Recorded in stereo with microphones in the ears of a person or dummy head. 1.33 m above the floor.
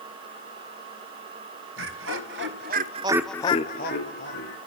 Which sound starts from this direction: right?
Laughter, at 1.8 s.